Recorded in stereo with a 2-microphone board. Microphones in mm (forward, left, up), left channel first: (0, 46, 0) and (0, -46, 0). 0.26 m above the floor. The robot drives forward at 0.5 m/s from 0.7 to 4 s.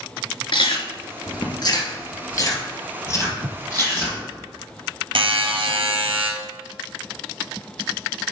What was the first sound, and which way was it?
Chewing, 65° left (ahead or behind).